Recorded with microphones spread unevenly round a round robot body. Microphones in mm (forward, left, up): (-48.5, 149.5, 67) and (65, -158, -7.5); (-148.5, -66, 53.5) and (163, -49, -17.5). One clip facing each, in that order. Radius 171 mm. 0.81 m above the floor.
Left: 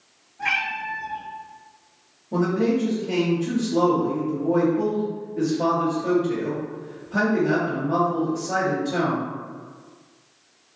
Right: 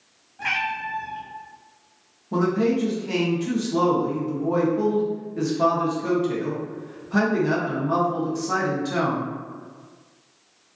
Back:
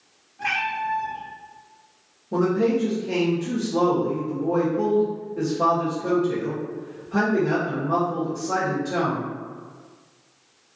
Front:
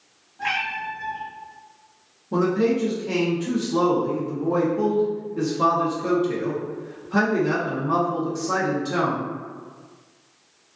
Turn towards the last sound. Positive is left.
turn(degrees=-50)